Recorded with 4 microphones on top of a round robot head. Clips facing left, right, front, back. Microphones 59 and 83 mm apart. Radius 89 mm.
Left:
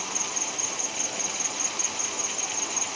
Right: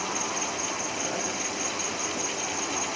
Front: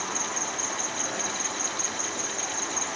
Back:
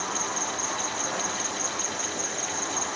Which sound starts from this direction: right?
An insect, at 0.0 s.